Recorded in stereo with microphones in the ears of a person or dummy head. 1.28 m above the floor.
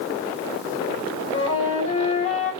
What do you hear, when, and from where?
1.3 s a flute: 40° left (ahead or behind), 4.5 m